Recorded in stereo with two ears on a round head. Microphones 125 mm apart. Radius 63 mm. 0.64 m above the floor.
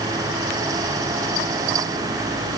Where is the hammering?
I don't hear hammering.